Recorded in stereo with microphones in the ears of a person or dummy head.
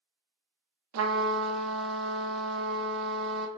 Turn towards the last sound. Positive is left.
turn(degrees=-80)